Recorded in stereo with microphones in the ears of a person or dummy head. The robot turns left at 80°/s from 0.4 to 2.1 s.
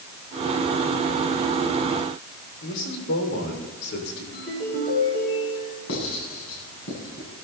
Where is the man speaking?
55° left (ahead or behind), 6.5 m.